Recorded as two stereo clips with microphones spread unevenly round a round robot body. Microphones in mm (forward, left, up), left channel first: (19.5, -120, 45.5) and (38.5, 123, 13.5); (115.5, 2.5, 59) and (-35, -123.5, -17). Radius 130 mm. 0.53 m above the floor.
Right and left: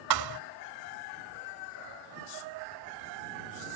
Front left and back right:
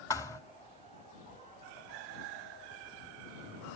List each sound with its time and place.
0.1 s a thud: 115° left